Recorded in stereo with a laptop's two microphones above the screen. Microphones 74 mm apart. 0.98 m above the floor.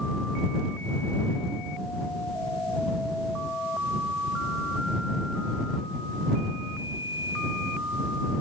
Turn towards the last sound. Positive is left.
No sound to turn to.